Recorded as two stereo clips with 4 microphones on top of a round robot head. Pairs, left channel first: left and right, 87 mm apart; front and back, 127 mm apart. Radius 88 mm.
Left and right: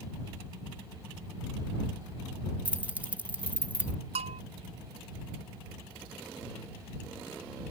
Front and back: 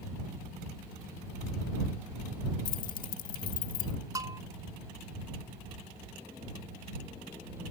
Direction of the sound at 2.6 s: 15° right.